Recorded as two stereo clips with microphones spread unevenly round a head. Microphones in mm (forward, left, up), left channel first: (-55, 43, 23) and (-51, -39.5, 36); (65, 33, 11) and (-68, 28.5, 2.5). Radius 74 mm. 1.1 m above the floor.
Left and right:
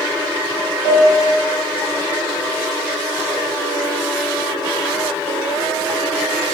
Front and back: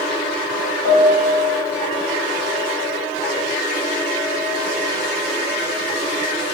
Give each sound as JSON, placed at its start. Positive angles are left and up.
{"t": 0.8, "sound": "a piano", "azimuth_deg": 50, "distance_m": 5.0}